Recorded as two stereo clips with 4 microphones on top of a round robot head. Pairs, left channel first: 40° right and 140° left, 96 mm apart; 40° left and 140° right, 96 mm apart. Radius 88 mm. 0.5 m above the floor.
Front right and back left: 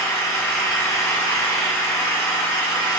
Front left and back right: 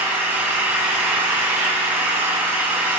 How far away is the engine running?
About 1.1 m.